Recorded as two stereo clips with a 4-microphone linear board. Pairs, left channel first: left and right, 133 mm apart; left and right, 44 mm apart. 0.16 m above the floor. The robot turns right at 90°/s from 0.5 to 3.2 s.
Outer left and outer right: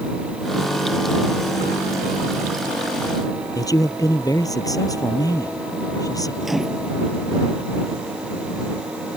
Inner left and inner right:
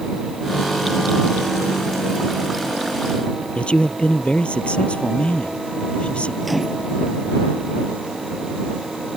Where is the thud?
I don't hear a thud.